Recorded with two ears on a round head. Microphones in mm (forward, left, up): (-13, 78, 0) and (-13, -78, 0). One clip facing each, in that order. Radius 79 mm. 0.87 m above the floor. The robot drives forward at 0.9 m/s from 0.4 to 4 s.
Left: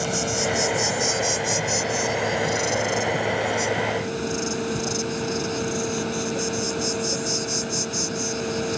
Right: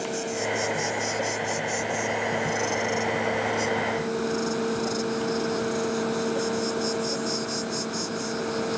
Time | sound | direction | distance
0.0 | an insect | 80° left | ?